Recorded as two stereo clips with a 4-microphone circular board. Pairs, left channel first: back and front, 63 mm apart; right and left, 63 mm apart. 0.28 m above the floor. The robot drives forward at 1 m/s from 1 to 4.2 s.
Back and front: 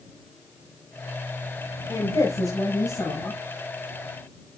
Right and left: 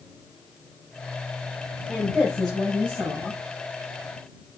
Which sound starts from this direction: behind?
A woman speaking, at 1.9 s.